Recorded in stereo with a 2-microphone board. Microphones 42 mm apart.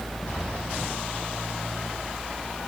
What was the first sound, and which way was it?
Only background noise.